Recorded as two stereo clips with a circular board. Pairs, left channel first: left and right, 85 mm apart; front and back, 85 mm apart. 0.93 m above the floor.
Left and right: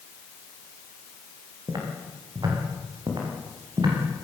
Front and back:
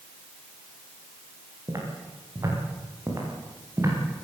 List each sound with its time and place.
1.7 s footsteps: 130° right, 8 m; by 4.0 s 125° right, 9 m